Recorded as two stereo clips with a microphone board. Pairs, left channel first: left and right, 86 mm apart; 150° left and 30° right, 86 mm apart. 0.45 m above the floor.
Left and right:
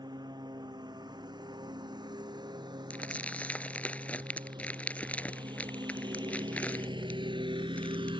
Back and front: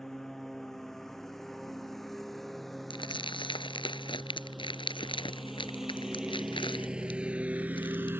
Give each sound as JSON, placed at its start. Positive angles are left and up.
{"t": 0.0, "sound": "a lawn mower", "azimuth_deg": -125}
{"t": 2.9, "sound": "crumpling", "azimuth_deg": 165}